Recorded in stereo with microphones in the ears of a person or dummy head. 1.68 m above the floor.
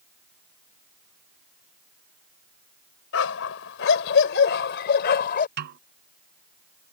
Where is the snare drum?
50° right (ahead or behind).